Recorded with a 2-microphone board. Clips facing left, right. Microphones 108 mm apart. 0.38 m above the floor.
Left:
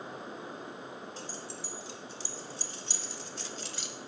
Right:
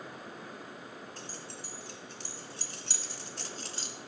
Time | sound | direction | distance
1.2 | keys jangling | 50° right (ahead or behind) | 3 m